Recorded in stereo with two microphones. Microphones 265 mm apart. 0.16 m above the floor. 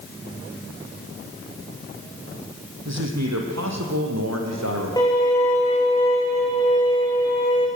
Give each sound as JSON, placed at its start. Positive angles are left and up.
{"t": 2.9, "sound": "a man speaking", "side_deg": -80, "distance_m": 4.5}
{"t": 5.0, "sound": "a violin", "side_deg": 15, "distance_m": 7.5}